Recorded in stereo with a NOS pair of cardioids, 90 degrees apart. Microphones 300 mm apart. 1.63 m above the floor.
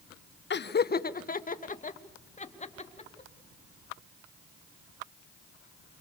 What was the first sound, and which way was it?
Laughter, 35° left.